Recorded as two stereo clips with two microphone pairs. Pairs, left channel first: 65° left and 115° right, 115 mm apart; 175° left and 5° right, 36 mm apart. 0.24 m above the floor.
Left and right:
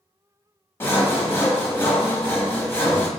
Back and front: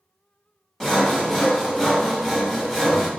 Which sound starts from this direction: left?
Sawing, at 0.8 s.